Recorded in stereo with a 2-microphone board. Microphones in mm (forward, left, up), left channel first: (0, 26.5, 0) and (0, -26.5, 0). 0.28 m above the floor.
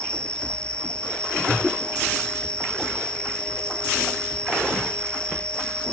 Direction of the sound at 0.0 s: 20° left (ahead or behind).